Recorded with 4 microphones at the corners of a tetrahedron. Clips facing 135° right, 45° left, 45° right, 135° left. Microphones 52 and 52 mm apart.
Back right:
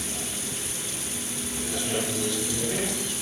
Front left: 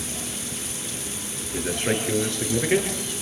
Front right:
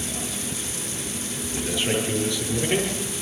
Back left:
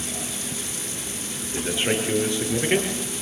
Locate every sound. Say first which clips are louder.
1.5 s a man speaking: front left 5 dB, back left 1 dB; 75° left, 7 m